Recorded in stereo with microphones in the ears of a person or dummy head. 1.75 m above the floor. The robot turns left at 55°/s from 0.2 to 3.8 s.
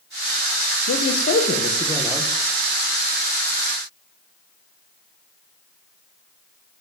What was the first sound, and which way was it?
A man speaking, 75° left.